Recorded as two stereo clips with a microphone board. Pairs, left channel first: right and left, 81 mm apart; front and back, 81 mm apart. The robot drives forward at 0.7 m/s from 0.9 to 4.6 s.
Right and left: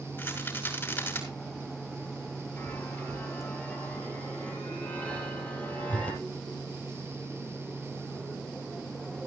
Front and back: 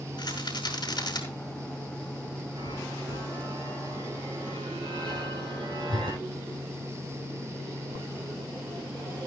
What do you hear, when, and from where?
0.2 s a rattle: 30° right, 5.5 m
2.6 s a chime: 160° right, 3.5 m; by 6.2 s 165° right, 5 m